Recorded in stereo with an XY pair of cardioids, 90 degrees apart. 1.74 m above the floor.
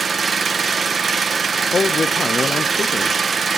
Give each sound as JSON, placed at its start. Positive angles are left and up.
{"t": 0.0, "sound": "an engine running", "azimuth_deg": -45, "distance_m": 1.5}
{"t": 1.7, "sound": "a man speaking", "azimuth_deg": 40, "distance_m": 0.7}